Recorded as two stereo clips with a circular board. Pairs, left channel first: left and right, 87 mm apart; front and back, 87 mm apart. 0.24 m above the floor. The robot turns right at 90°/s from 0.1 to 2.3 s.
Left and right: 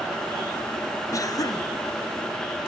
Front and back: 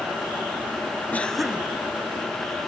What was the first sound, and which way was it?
A cough, 65° left.